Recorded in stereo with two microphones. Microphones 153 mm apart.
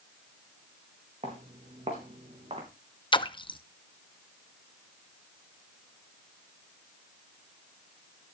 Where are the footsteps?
45° right (ahead or behind), 4.5 m; by 2.7 s 40° right (ahead or behind), 3.5 m.